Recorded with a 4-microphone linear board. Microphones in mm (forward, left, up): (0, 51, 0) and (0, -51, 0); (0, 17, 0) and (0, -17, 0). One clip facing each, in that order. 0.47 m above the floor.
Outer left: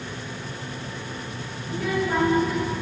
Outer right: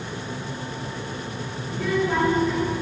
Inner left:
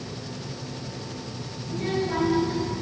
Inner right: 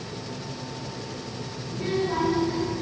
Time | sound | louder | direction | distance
1.7 | a child speaking | outer right 1 dB, even | 10° left (ahead or behind) | 6.5 m